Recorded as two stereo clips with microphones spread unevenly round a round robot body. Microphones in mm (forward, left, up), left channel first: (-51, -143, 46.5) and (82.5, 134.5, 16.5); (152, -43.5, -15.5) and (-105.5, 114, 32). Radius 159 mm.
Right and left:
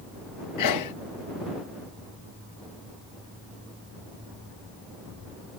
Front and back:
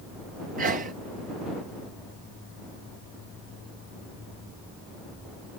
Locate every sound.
0.6 s a sneeze: 145° right